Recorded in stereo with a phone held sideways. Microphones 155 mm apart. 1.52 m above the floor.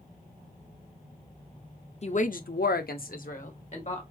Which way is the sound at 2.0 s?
40° left (ahead or behind).